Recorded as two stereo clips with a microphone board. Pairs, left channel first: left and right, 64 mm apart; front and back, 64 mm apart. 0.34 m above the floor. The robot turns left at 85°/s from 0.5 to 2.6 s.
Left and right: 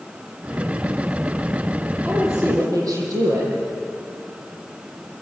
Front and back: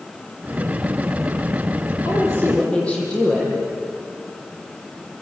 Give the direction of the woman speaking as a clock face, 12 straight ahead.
1 o'clock.